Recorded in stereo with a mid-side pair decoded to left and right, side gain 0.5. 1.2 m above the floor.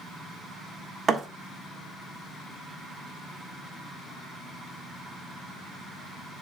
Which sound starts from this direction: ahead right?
A thud, at 1.1 s.